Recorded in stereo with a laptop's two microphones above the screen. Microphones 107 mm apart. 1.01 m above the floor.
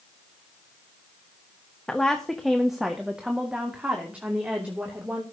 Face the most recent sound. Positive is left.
turn(degrees=-15)  # may be behind; listen again after turning